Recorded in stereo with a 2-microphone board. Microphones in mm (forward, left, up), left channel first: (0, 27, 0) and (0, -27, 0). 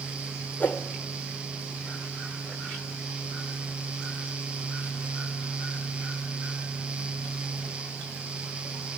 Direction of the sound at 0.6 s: 30° left (ahead or behind).